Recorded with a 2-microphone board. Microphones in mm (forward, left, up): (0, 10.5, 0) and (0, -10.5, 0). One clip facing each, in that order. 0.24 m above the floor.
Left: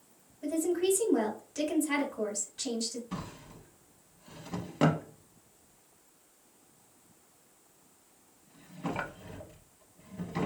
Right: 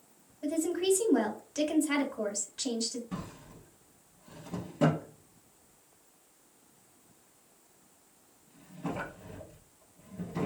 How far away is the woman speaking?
About 1.1 m.